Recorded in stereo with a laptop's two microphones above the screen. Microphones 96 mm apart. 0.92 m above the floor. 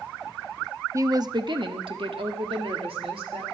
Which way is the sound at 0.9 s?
30° right (ahead or behind).